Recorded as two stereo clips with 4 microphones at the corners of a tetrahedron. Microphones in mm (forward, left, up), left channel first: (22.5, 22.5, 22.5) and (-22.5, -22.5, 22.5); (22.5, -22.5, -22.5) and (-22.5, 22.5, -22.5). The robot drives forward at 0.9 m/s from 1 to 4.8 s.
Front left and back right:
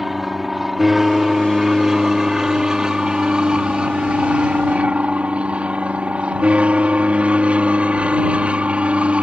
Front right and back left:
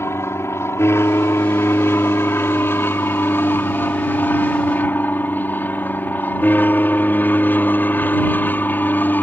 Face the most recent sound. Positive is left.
turn(degrees=-80)